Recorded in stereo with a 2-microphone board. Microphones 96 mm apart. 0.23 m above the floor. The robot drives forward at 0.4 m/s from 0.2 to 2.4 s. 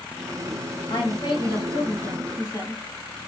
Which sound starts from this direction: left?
A woman speaking, at 0.9 s.